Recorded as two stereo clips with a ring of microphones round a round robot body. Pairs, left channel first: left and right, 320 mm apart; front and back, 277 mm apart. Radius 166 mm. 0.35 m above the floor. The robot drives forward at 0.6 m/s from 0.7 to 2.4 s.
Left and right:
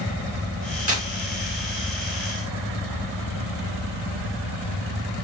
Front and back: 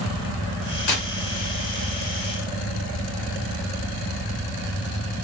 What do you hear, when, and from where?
0.9 s tearing paper: 20° right, 1.7 m; by 1.1 s 25° right, 1.6 m